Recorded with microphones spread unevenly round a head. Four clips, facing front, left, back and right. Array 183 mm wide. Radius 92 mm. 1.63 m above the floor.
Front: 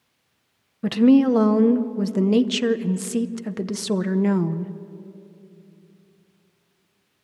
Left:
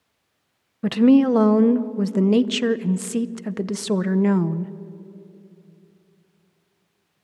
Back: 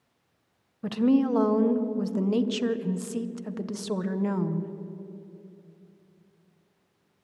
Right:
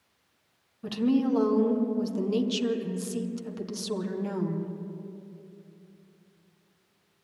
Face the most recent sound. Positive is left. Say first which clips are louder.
# left 10 dB, front 7 dB
turn(degrees=55)